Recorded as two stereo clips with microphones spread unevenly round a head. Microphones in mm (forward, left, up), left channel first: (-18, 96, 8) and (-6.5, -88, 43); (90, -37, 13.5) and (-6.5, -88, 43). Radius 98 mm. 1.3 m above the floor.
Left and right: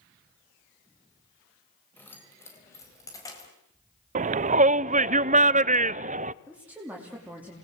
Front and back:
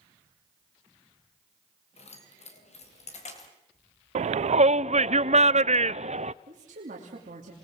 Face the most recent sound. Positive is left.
turn(degrees=-170)